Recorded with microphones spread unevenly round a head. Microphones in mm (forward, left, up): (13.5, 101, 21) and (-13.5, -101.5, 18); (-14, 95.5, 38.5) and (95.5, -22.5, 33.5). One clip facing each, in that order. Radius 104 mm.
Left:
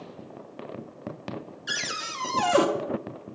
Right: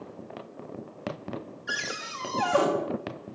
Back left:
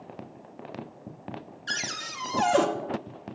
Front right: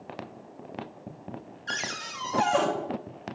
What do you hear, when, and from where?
1.7 s a cupboard door: 95° left, 1.0 m